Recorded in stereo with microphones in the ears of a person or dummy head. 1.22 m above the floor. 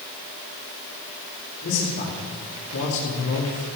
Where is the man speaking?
45° left (ahead or behind), 3 m; by 3.7 s 80° left, 2.5 m.